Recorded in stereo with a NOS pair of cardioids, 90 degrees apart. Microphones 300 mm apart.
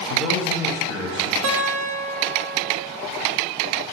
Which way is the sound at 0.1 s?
70° left.